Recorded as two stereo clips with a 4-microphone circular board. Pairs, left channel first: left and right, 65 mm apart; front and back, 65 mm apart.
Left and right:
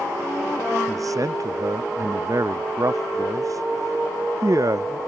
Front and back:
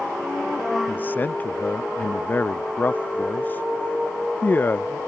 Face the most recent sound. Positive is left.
turn(degrees=-60)